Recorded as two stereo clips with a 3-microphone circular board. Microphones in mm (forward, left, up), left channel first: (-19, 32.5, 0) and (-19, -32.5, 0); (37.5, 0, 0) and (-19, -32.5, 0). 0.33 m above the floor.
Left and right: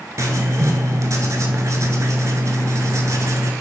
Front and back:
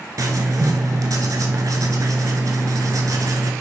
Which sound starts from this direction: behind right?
Writing, at 0.2 s.